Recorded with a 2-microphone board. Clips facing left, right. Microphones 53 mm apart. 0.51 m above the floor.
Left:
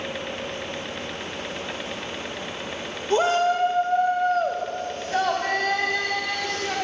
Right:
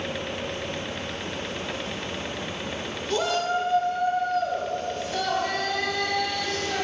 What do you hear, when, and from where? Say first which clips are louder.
3.1 s a shout: left 5 dB; 30° left (ahead or behind), 1.9 m; by 6.8 s 45° left (ahead or behind), 5 m